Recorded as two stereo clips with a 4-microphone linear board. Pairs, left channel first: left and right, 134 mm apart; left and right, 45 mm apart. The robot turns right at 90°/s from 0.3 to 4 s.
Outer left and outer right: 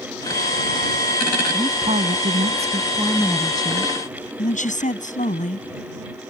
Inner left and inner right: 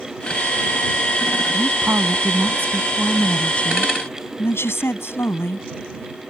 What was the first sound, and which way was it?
A woman speaking, 155° right.